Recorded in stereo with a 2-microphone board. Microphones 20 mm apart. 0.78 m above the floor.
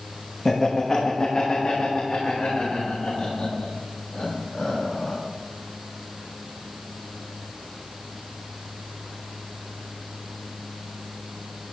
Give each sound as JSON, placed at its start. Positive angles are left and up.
{"t": 0.5, "sound": "laughter", "side_deg": 25, "distance_m": 1.0}